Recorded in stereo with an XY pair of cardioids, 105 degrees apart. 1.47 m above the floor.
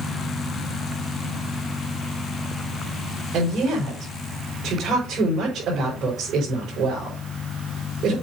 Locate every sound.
3.3 s a woman speaking: 60° right, 4 m